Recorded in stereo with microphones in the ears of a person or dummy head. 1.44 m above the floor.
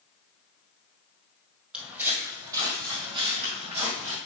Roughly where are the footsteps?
Centre.